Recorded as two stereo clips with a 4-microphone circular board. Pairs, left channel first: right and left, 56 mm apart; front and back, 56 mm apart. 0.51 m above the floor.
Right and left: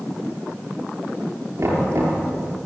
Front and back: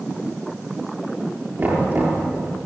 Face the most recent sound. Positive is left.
turn(degrees=125)